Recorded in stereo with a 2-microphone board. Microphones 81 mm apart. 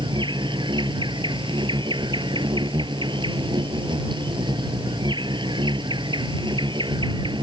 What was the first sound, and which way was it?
An insect, 80° right.